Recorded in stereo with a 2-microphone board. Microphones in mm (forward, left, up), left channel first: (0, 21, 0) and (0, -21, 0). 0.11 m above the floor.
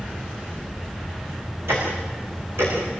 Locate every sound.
1.7 s ticking: 70° right (ahead or behind), 9.5 m